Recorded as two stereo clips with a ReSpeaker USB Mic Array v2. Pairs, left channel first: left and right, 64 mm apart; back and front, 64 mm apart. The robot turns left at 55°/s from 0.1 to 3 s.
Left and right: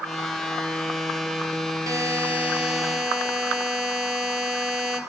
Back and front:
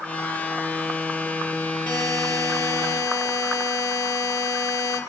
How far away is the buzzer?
About 2 m.